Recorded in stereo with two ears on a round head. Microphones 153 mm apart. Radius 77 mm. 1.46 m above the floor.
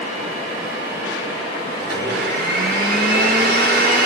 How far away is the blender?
About 6 m.